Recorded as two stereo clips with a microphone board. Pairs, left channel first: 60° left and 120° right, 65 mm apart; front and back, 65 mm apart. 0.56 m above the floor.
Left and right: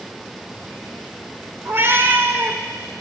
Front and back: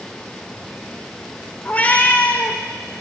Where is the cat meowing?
65° right, 0.6 m.